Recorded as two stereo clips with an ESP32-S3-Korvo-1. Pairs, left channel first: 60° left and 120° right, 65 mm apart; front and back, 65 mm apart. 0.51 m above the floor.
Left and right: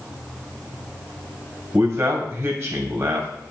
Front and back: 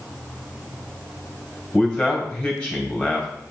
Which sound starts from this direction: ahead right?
A man speaking, at 1.7 s.